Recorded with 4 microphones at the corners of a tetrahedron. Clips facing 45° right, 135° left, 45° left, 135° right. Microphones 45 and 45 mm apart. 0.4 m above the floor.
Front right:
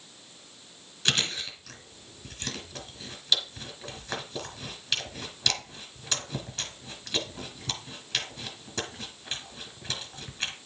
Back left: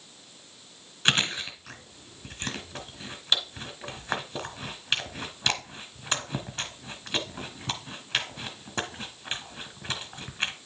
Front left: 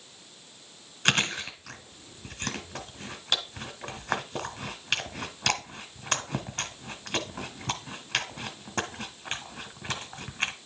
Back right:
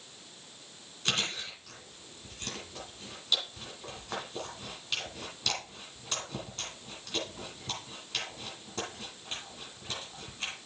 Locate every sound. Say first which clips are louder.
1.1 s chewing: back left 3 dB, front left 7 dB; 80° left, 1.3 m